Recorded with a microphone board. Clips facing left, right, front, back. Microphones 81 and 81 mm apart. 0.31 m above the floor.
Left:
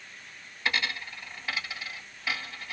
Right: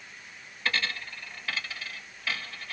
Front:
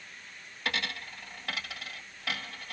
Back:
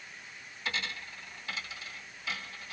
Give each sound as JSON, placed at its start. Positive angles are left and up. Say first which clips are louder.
{"t": 0.7, "sound": "a dropped coin", "louder": "left 1 dB, front 3 dB", "azimuth_deg": 15, "distance_m": 1.2}